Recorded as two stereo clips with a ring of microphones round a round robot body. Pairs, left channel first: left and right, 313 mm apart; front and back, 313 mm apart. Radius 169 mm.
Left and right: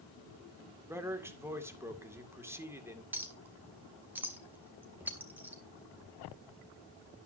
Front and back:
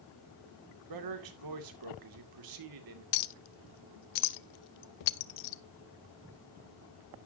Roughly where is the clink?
Ahead.